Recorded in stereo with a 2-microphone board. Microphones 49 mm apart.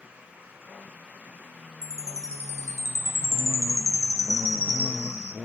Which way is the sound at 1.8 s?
70° left (ahead or behind).